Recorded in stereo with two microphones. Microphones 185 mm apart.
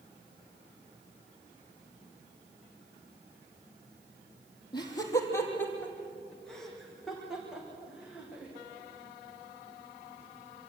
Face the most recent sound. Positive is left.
turn(degrees=-10)  # may be behind; listen again after turning